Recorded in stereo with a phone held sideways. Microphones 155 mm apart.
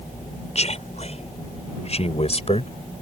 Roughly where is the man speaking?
Left.